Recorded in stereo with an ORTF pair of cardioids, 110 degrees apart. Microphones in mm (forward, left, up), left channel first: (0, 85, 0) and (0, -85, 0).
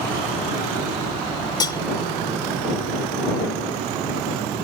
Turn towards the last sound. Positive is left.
turn(degrees=25)